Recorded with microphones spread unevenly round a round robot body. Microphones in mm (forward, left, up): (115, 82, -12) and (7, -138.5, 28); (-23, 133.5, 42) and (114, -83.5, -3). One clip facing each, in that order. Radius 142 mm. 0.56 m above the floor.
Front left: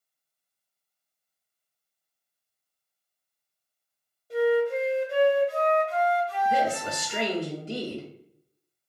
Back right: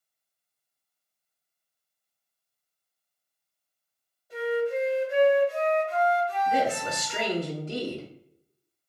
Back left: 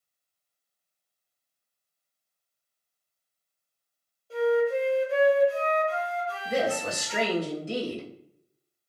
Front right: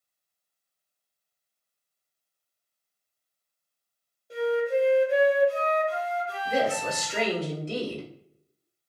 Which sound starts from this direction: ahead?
A flute, at 4.3 s.